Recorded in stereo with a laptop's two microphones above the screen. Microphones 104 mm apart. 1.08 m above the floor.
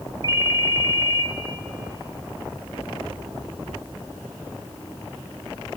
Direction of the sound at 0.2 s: 30° right (ahead or behind).